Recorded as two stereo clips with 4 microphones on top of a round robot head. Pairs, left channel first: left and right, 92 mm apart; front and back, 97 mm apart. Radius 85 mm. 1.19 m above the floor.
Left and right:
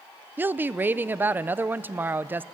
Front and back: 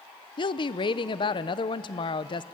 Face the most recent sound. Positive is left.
turn(degrees=-25)